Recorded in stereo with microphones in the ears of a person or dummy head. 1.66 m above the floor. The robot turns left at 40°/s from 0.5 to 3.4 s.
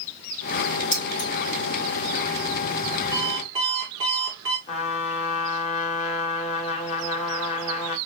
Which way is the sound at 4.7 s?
45° left (ahead or behind).